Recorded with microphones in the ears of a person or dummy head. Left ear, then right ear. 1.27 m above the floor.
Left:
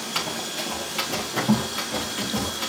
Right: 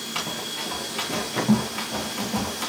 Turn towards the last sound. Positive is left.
turn(degrees=-15)  # may be behind; listen again after turning